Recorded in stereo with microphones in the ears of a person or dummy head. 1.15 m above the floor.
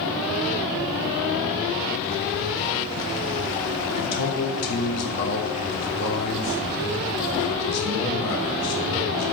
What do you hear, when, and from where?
3.9 s a man speaking: 60° left (ahead or behind), 3 m